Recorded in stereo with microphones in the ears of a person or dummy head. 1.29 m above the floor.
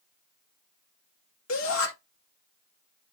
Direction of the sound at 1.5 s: 75° left (ahead or behind).